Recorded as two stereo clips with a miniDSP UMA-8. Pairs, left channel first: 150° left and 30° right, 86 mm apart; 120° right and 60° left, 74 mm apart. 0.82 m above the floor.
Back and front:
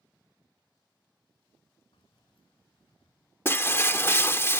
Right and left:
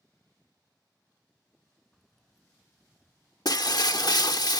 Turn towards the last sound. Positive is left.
turn(degrees=-150)